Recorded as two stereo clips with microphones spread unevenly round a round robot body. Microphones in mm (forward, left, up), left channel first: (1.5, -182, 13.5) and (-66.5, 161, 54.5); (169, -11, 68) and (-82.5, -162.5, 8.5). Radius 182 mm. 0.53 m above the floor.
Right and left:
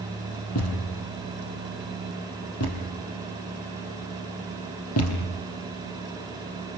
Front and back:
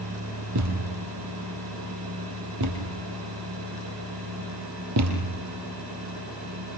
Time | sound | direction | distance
0.6 | a thud | 125° right | 4.5 m